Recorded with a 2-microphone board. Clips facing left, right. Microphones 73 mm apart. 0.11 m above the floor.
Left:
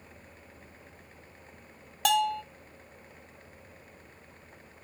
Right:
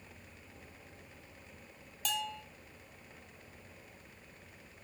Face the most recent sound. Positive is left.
turn(degrees=70)  # may be behind; listen again after turning